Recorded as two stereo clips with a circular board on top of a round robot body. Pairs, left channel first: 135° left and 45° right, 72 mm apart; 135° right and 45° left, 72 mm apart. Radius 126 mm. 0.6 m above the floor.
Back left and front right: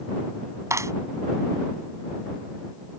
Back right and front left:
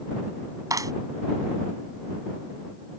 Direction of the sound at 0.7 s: 5° left.